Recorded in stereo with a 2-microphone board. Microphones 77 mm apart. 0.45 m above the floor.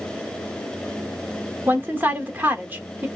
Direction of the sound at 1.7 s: 25° right (ahead or behind).